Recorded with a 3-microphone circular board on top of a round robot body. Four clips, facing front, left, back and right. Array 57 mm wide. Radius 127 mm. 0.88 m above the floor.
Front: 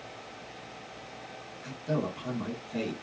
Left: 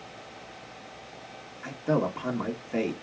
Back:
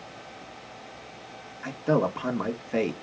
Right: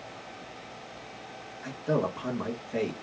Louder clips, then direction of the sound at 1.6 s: Left 2 dB, back 8 dB; 165° left.